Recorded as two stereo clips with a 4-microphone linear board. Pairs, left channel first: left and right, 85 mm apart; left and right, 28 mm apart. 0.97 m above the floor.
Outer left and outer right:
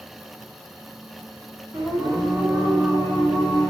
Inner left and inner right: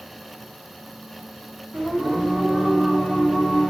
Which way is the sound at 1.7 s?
25° right (ahead or behind).